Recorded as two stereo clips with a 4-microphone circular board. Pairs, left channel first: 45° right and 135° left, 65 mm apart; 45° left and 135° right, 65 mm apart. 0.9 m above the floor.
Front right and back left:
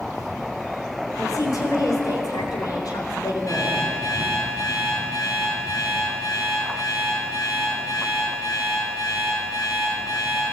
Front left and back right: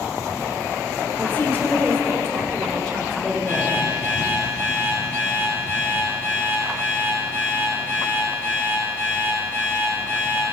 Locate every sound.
1.2 s a woman speaking: 20° right, 3.5 m; by 3.8 s 50° right, 4 m
3.5 s an alarm clock: 10° right, 10 m